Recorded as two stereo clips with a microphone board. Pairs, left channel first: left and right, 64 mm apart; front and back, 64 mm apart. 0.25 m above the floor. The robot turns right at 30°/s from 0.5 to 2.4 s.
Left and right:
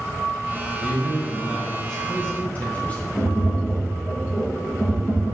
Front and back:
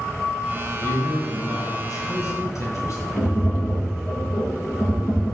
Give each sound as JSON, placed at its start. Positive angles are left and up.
{"t": 0.8, "sound": "a man speaking", "azimuth_deg": -25, "distance_m": 3.0}
{"t": 3.2, "sound": "tapping", "azimuth_deg": 40, "distance_m": 3.5}